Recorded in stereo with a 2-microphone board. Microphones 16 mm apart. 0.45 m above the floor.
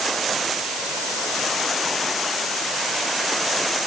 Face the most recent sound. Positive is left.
No sound to turn to.